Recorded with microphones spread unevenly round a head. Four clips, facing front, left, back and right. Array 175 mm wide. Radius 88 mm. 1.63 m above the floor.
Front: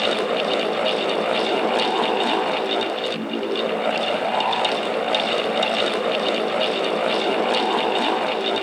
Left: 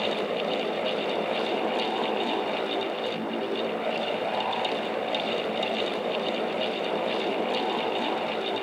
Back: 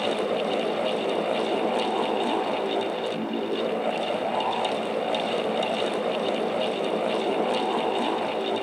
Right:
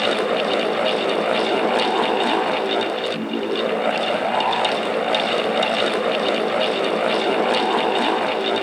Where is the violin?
No violin in this recording.